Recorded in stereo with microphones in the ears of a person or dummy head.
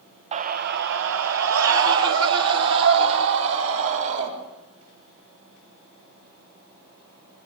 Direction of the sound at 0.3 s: 35° right (ahead or behind).